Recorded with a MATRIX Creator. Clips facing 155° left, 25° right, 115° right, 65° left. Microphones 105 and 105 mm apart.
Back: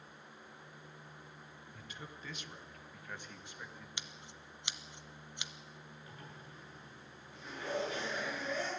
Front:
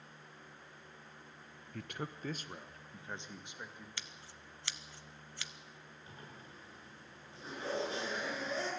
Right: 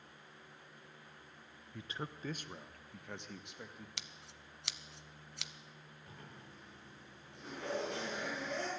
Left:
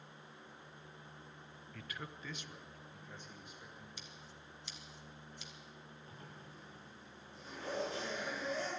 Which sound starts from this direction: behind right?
Scissors, at 4.0 s.